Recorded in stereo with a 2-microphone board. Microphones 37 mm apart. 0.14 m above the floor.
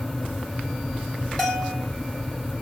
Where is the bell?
25° left (ahead or behind), 3 m.